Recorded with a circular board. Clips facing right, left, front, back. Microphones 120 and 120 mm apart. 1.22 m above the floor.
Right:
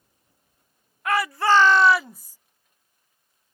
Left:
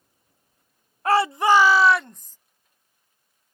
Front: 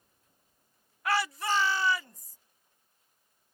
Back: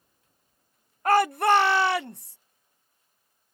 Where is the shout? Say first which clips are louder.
Left 3 dB, back 9 dB; 140° left; by 2.4 s 170° right.